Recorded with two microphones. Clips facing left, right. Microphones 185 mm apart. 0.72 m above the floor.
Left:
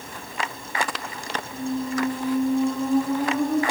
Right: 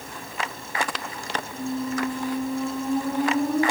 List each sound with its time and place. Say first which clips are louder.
1.5 s a squeak: left 2 dB; 45° left (ahead or behind), 1.3 m